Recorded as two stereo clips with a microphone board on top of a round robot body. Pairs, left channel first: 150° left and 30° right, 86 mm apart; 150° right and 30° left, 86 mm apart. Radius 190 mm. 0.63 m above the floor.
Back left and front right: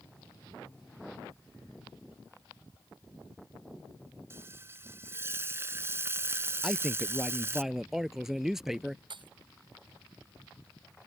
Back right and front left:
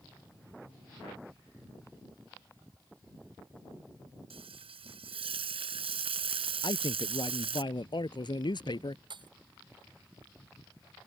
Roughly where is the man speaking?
Behind right.